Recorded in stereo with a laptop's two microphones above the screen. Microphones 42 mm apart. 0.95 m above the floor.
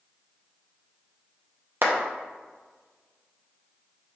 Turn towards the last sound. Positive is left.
turn(degrees=-55)  # may be behind; listen again after turning